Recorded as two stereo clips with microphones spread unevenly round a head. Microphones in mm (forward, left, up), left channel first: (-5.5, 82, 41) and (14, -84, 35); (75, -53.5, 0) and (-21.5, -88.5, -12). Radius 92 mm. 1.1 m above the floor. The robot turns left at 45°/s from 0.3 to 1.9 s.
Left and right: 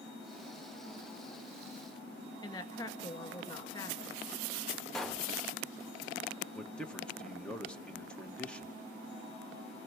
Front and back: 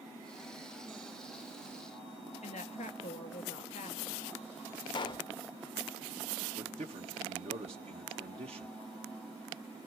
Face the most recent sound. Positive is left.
turn(degrees=180)